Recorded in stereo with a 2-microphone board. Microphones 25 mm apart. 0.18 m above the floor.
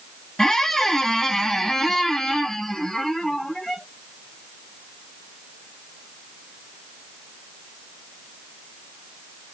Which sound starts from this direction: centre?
A squeak, at 0.4 s.